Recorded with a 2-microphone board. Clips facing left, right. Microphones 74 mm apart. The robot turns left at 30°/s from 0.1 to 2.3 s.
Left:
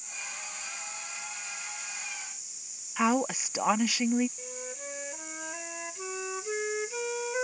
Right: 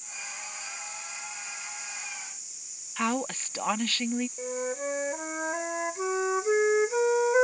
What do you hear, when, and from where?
3.0 s a woman speaking: 10° left (ahead or behind)
4.4 s a flute: 40° right (ahead or behind)